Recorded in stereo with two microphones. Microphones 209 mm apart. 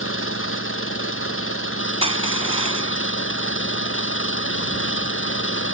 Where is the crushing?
30° right (ahead or behind).